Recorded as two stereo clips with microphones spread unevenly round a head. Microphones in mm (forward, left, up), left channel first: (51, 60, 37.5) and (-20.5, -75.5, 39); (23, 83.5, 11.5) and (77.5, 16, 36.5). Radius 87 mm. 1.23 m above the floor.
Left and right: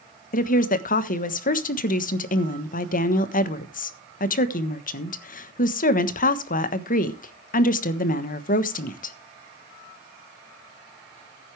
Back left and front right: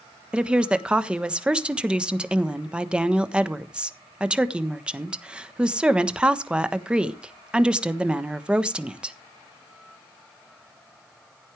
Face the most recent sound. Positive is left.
turn(degrees=30)